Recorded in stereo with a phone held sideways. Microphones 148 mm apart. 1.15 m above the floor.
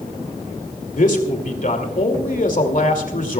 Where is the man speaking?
65° left (ahead or behind), 2.5 m.